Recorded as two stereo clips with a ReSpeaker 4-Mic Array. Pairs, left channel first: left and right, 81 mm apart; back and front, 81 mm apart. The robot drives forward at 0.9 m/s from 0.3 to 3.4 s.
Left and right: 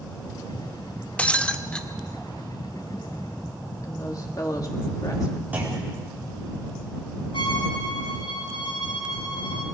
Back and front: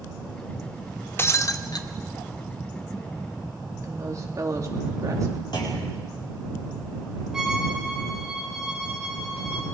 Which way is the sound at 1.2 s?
155° left.